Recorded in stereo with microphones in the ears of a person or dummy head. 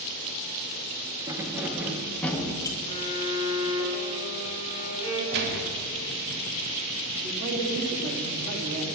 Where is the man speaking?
60° right (ahead or behind), 2.5 m.